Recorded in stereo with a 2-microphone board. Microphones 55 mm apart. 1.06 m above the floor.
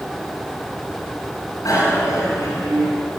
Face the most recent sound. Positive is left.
turn(degrees=90)